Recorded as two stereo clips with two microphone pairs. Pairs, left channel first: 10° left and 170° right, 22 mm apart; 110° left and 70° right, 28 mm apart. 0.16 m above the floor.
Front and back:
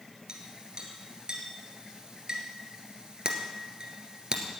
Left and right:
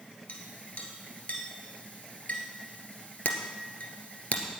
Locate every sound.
0.3 s a clink: 140° left, 2.0 m